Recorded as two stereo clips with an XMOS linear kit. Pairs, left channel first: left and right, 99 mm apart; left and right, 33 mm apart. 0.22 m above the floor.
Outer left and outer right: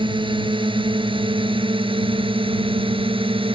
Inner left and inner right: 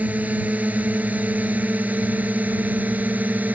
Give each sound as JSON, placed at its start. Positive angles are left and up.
{"t": 0.0, "sound": "a drone", "side_deg": -60}